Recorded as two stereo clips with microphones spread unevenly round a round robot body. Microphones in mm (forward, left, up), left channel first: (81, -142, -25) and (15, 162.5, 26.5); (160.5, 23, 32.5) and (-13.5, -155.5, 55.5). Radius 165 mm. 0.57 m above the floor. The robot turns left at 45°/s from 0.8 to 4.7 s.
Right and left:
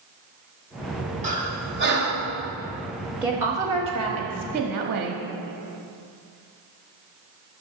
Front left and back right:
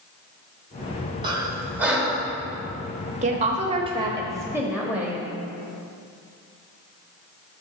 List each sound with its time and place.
1.2 s breathing: 165° left, 1.3 m; by 2.3 s 115° left, 1.3 m
3.2 s a woman speaking: 155° right, 1.0 m; by 5.2 s 135° left, 1.0 m